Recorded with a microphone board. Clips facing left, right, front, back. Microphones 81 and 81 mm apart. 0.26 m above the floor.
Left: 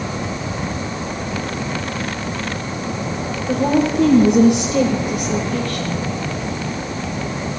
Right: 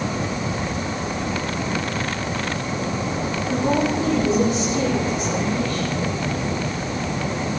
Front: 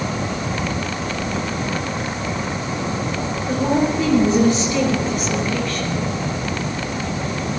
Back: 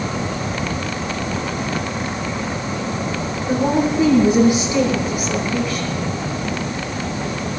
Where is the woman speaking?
110° left, 6 m; by 6.0 s 95° left, 5 m.